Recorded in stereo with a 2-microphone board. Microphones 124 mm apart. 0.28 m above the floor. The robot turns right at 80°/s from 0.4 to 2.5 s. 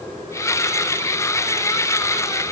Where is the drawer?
I don't hear a drawer.